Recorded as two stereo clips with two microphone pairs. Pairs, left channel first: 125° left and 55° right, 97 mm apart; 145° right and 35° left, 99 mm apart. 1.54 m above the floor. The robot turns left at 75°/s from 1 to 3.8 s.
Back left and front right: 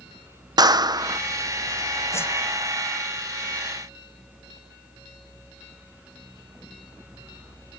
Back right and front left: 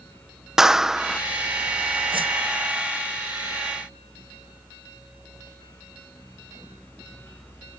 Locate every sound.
0.6 s a clap: 40° right; by 1.2 s 55° right
2.1 s a whoosh: 70° left; by 2.3 s 50° left